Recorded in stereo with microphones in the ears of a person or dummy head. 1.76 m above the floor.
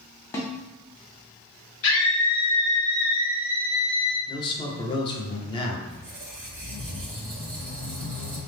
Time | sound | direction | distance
0.3 | a snare drum | 15° left (ahead or behind) | 0.6 m
1.8 | a scream | 70° left (ahead or behind) | 1.3 m
4.3 | a man speaking | 25° left (ahead or behind) | 0.6 m
5.9 | a squeak | 10° right (ahead or behind) | 1.5 m